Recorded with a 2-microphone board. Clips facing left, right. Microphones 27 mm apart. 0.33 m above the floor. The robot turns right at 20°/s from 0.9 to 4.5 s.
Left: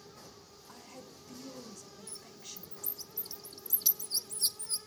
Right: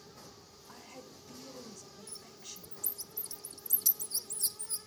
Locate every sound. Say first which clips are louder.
0.7 s a woman speaking: even; 10° right, 1.7 m; by 2.9 s 25° left, 1.7 m
2.1 s a bird: left 1 dB; centre (ahead or behind), 0.7 m; by 4.8 s 50° left (ahead or behind), 0.7 m